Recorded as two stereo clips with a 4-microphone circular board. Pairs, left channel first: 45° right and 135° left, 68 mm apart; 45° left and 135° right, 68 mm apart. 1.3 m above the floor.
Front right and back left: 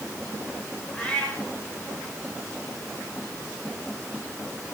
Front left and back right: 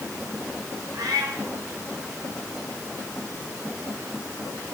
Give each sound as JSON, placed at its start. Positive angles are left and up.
{"t": 0.9, "sound": "a cat meowing", "azimuth_deg": -115, "distance_m": 6.5}